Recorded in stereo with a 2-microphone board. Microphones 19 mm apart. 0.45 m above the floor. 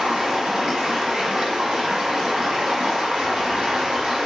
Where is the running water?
60° right (ahead or behind), 1.1 m.